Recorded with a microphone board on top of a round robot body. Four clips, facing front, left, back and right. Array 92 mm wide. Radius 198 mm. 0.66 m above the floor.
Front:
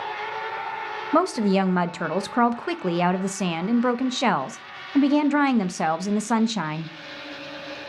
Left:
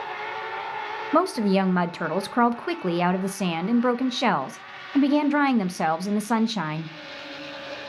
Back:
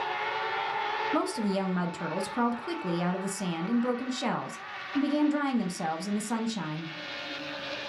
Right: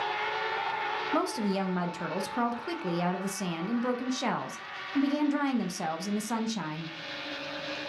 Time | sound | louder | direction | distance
1.1 | a woman speaking | left 10 dB, front 11 dB | 45° left | 0.6 m